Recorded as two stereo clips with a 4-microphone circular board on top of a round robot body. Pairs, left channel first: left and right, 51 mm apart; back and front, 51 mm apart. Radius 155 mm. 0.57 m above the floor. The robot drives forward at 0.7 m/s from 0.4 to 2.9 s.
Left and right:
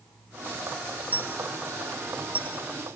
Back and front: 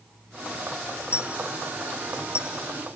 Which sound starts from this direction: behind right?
A dropped coin, at 1.1 s.